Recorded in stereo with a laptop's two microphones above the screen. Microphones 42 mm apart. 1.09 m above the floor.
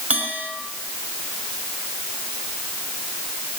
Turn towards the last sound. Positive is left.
turn(degrees=-35)  # may be behind; listen again after turning